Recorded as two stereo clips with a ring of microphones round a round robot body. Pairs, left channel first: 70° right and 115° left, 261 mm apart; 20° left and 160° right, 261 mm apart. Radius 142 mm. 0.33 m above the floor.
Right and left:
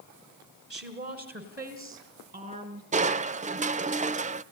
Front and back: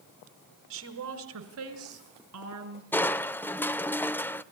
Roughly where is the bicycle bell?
No bicycle bell in this recording.